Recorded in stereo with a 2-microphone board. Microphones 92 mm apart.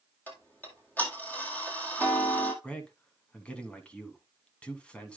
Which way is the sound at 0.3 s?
20° left (ahead or behind).